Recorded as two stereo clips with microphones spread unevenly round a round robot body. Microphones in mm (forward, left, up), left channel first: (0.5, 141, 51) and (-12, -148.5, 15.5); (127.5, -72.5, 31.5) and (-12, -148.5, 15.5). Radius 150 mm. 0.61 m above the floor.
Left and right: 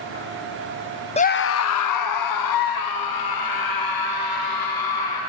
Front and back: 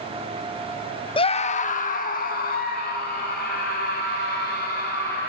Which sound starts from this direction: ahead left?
A scream, at 1.2 s.